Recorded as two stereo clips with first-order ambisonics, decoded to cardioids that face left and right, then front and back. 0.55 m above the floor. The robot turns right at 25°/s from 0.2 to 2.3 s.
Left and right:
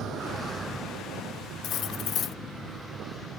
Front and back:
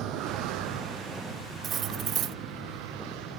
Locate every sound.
0.0 s a vehicle: 140° right; by 3.4 s 175° right
1.6 s cutlery clinking: 125° left; by 2.4 s 140° left